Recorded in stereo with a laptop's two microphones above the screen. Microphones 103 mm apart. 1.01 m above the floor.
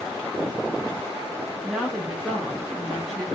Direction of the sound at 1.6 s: 10° right (ahead or behind).